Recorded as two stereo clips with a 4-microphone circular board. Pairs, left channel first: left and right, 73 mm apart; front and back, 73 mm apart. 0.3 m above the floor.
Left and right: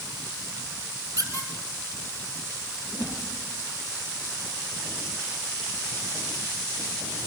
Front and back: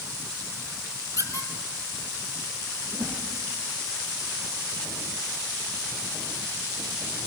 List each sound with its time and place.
1.2 s a squeak: 40° left, 3 m
2.9 s a whoosh: 65° left, 9 m